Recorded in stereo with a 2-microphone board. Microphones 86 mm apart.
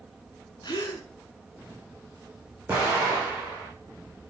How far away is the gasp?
About 1.7 m.